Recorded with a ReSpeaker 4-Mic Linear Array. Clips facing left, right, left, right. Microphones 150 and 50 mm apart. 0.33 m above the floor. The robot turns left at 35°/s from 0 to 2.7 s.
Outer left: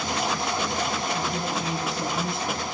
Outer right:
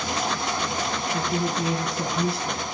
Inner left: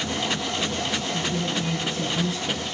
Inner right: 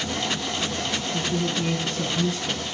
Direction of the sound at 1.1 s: 105° right.